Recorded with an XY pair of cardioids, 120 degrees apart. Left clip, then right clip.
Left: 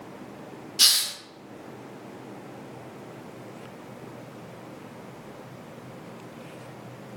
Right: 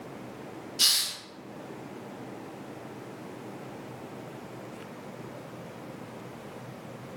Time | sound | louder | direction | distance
0.8 | a hiss | left 4 dB | 40° left | 0.6 m